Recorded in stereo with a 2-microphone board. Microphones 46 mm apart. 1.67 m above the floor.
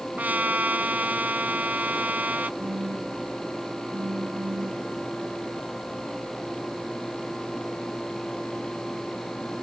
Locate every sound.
0.2 s a trumpet: 35° right (ahead or behind)
2.6 s a phone buzzing: 50° right (ahead or behind)